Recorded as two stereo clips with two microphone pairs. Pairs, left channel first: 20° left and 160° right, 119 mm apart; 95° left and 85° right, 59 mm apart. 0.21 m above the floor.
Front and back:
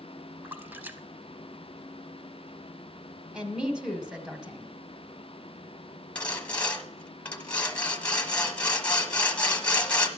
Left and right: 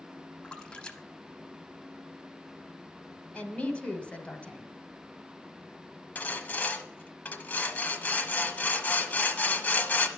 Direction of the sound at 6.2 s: 85° left.